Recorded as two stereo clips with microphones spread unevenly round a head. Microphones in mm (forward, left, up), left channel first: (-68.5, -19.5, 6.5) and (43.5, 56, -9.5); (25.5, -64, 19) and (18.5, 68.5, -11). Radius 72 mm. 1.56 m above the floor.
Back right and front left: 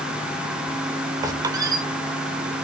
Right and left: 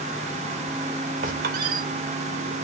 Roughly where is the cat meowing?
No cat meowing in this recording.